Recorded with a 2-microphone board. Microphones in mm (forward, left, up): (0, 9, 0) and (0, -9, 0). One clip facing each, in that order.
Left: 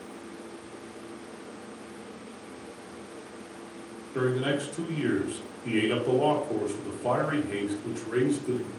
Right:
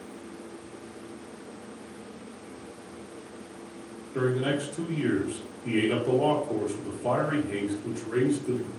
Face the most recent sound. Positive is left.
turn(degrees=15)  # may be behind; listen again after turning